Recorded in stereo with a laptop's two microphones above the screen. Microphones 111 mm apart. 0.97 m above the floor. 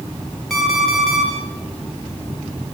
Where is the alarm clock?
Centre (ahead or behind), 8.5 m.